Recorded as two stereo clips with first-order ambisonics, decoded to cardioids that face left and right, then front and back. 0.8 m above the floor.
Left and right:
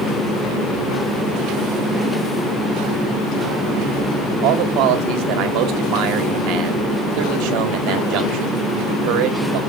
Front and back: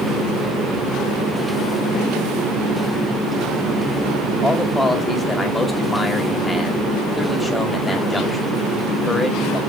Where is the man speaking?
80° right, 2 m.